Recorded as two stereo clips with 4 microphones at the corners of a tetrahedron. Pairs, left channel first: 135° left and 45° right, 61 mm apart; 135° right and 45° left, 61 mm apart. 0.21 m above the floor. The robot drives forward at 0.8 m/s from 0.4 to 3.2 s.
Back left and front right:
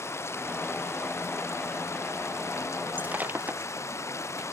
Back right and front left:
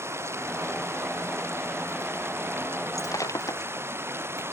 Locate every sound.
0.0 s running water: 90° left; by 4.5 s 95° left
3.0 s breaking glass: 110° right